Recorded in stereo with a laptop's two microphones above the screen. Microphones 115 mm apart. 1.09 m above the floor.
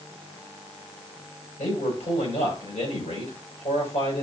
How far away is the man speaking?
About 6 m.